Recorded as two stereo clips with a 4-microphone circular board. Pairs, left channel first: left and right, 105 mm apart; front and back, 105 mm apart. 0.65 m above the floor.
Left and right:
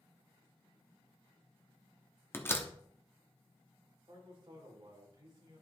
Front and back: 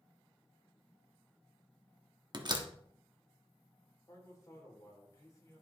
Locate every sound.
2.3 s a door slam: 155° left, 1.0 m
4.1 s a man speaking: 55° right, 2.5 m